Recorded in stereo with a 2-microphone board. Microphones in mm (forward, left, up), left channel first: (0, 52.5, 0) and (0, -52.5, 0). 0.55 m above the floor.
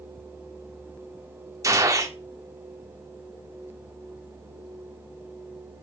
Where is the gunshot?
30° right (ahead or behind), 1.6 m.